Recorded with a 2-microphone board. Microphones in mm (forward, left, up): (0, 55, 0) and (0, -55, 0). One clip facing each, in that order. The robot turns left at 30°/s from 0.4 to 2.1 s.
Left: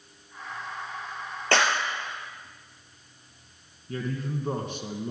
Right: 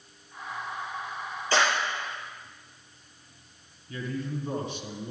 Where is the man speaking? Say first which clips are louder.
Left 2 dB; 50° left (ahead or behind), 2.5 m.